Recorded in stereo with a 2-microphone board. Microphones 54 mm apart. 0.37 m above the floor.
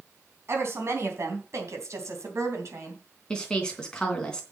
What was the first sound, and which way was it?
A woman speaking, 50° right (ahead or behind).